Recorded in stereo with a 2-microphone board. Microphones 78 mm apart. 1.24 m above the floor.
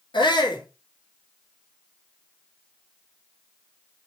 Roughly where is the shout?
Left.